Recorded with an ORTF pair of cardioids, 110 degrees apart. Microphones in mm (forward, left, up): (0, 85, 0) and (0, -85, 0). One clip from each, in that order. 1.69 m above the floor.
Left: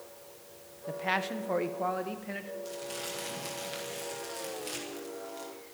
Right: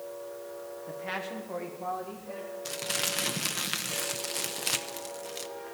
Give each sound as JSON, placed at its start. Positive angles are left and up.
{"t": 0.9, "sound": "a man speaking", "azimuth_deg": 25, "distance_m": 1.3}
{"t": 2.6, "sound": "crumpling", "azimuth_deg": -65, "distance_m": 1.2}